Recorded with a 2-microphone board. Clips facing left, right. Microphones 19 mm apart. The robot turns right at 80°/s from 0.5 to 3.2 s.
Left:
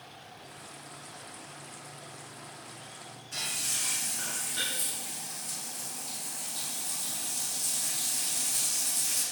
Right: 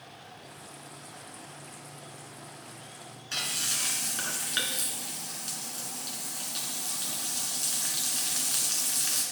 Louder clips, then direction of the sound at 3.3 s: Right 3 dB; 75° right (ahead or behind).